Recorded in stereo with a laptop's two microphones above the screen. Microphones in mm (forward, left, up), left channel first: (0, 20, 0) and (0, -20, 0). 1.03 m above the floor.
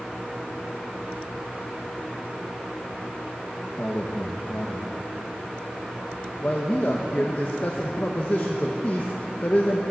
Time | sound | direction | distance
3.8 | a man speaking | 40° left (ahead or behind) | 0.7 m